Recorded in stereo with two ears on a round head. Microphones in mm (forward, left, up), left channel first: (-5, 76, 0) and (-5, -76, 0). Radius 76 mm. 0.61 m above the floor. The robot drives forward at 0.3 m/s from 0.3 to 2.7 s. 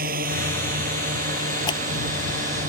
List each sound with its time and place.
0.0 s a drone: 55° right (ahead or behind); by 2.7 s 45° right (ahead or behind)
1.7 s scissors: 25° left (ahead or behind)